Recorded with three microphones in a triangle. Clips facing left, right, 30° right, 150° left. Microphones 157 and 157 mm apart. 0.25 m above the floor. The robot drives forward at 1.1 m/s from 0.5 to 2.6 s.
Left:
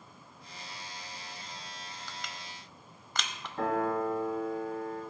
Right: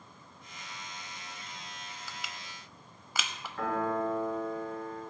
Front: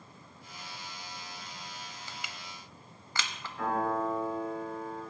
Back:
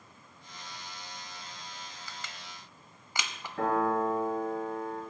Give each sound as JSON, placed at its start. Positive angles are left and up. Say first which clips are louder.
{"t": 2.1, "sound": "crushing", "louder": "left 1 dB, front 1 dB", "azimuth_deg": -15, "distance_m": 0.7}
{"t": 3.6, "sound": "a piano", "louder": "left 2 dB, back 3 dB", "azimuth_deg": 150, "distance_m": 4.0}